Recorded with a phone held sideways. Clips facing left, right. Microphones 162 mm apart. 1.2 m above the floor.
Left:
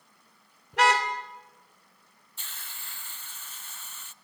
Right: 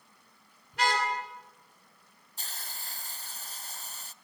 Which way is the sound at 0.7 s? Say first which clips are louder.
Left 5 dB; 75° left (ahead or behind).